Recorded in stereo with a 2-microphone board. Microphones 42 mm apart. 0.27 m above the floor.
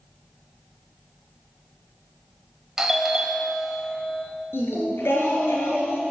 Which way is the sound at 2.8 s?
10° right (ahead or behind).